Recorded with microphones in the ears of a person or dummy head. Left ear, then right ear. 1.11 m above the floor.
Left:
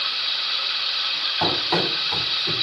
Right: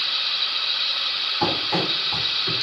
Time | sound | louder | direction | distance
1.4 | running footsteps | left 2 dB | 25° left (ahead or behind) | 2.0 m